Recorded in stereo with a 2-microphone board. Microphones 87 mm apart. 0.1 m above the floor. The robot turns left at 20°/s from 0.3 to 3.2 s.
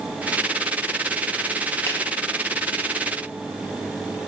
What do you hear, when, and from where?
1.9 s a finger snap: 30° left (ahead or behind), 2 m; by 2.0 s 25° left (ahead or behind), 2 m